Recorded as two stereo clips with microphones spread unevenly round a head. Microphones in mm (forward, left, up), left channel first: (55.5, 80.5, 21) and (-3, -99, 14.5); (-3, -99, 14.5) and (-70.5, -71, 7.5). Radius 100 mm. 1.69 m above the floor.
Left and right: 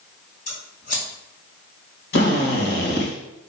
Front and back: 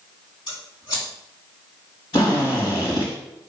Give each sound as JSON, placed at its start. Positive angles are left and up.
{"t": 0.5, "sound": "scissors", "azimuth_deg": 20, "distance_m": 3.5}
{"t": 2.1, "sound": "a drill", "azimuth_deg": 35, "distance_m": 2.5}